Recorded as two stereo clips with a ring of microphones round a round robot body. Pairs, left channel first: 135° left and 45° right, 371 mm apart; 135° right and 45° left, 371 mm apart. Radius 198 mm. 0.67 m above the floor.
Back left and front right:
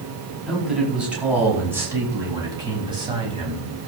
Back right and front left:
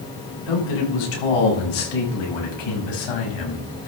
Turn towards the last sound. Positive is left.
turn(degrees=-120)